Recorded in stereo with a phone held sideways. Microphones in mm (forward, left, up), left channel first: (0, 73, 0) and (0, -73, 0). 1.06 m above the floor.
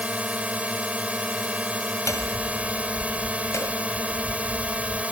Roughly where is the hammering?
Left.